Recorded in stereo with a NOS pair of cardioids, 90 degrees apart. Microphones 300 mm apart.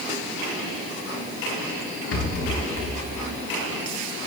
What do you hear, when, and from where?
2.1 s a rattle: 55° left, 4 m